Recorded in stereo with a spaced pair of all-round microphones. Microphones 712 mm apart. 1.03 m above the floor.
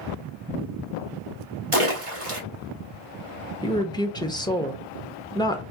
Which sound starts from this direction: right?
A splash, at 1.7 s.